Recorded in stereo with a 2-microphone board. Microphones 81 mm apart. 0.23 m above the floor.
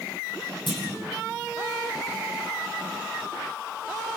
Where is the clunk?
80° left, 8.5 m.